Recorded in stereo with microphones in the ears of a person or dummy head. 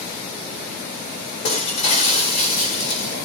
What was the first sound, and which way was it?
Breaking glass, 40° left (ahead or behind).